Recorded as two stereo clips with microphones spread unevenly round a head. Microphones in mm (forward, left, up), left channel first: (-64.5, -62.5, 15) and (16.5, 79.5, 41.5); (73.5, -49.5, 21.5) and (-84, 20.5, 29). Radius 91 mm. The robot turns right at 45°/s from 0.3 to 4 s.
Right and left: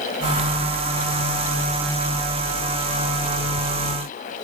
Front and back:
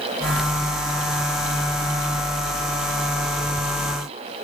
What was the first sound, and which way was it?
Only background noise.